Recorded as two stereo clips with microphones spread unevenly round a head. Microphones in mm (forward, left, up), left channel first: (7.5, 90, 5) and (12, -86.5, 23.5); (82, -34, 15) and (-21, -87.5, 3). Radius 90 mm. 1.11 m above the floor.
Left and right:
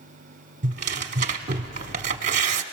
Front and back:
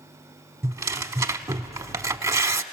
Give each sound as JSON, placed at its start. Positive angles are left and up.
{"t": 0.6, "sound": "tearing paper", "azimuth_deg": -100, "distance_m": 0.9}